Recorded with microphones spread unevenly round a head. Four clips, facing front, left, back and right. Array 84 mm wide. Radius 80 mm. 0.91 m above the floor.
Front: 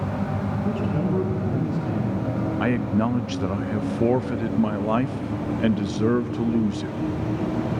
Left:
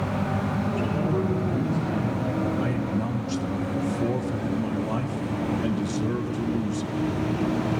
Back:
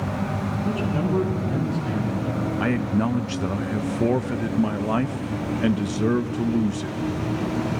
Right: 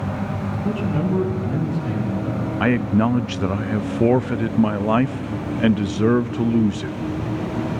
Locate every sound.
0.6 s a man speaking: 55° right, 9 m; by 2.5 s 50° right, 10 m
2.6 s a man speaking: 115° right, 0.5 m